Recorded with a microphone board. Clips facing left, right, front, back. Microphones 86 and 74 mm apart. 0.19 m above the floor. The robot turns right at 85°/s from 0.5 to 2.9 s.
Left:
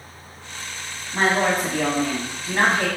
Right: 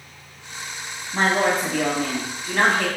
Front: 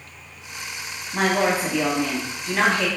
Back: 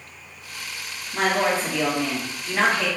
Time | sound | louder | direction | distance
1.1 | a woman speaking | even, front 1 dB | 10° right | 1.0 m